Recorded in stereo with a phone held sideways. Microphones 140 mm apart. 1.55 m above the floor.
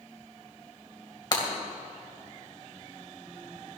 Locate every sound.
1.3 s breaking glass: 35° left (ahead or behind), 2.5 m